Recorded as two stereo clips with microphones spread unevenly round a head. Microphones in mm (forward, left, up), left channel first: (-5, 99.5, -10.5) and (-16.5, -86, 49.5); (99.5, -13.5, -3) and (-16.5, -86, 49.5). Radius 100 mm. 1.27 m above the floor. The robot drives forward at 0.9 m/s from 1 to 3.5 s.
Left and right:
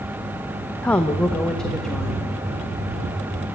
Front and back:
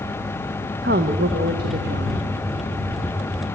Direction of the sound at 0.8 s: 170° left.